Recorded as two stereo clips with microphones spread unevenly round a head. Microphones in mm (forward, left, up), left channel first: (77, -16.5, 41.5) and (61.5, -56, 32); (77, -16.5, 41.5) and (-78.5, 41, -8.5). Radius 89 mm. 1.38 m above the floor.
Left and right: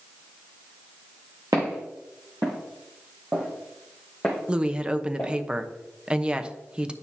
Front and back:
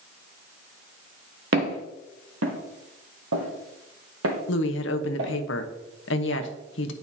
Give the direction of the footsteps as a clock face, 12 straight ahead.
6 o'clock.